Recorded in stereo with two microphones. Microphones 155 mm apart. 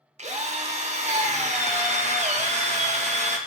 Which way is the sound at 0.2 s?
50° right (ahead or behind).